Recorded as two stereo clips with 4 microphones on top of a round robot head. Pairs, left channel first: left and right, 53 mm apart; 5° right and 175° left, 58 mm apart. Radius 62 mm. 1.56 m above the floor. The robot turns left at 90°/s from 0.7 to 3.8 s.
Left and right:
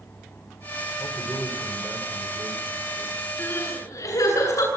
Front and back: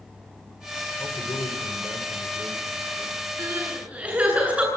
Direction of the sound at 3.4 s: 145° left.